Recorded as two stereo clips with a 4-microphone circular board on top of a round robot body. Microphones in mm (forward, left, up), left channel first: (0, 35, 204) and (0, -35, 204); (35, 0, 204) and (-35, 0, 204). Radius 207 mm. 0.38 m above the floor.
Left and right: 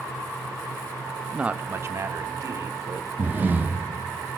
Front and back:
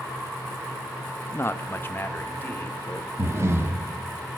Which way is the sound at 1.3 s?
15° right.